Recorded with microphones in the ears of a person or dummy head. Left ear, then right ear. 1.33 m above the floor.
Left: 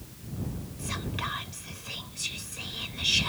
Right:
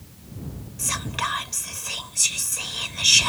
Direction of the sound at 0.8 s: 40° right (ahead or behind).